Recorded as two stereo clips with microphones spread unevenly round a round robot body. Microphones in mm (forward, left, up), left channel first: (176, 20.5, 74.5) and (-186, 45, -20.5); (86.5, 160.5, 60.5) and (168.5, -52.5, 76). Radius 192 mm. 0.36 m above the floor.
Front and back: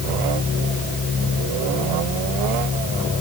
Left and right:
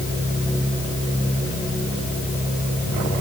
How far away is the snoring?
No snoring in this recording.